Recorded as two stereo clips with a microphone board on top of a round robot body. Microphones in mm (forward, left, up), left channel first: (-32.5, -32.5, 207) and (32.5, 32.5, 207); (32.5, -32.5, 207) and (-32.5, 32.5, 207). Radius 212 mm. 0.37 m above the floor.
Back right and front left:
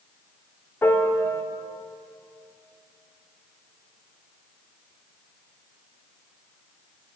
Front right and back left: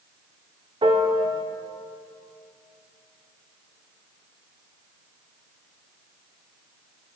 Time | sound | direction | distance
0.8 | a piano | 160° left | 1.0 m